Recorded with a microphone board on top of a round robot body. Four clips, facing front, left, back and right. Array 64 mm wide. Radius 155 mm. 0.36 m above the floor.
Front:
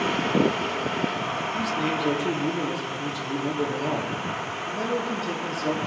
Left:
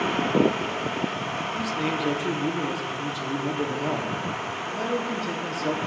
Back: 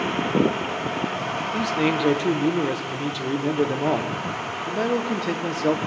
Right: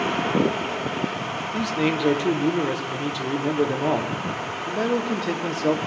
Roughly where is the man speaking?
Behind right.